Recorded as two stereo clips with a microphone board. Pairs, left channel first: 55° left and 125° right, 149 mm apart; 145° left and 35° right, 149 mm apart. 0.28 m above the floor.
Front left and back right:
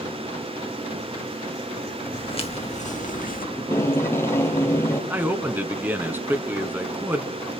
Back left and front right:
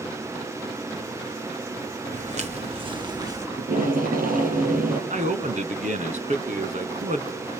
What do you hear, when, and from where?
2.1 s footsteps: straight ahead, 2.5 m; by 3.5 s 35° left, 2.5 m
3.6 s tape being pulled: 20° right, 4.5 m
5.1 s a man speaking: 50° right, 2.5 m